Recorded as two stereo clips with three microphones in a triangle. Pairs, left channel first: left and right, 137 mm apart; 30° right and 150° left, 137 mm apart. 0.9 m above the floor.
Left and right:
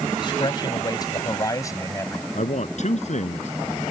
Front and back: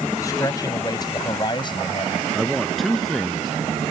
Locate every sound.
0.2 s a man speaking: 35° left; by 2.2 s 20° left
2.4 s a man speaking: 60° left